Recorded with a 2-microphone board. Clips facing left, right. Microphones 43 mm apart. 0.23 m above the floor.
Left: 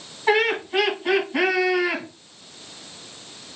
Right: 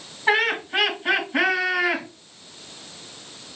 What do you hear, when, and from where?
0.3 s laughter: 10° right (ahead or behind), 2 m